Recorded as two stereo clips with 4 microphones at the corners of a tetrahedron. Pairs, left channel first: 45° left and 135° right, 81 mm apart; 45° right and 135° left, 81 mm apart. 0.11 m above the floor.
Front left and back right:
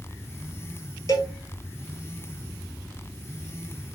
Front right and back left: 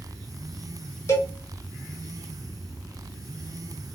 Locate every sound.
1.1 s a cowbell: 5° left, 0.9 m